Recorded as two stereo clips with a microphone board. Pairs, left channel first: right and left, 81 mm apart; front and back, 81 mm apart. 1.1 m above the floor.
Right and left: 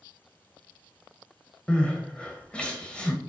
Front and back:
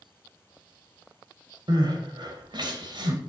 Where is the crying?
165° right, 1.9 m.